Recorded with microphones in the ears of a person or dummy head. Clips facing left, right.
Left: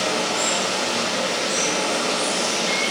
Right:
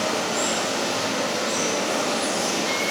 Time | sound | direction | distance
0.0 | running water | 30° right (ahead or behind) | 7 m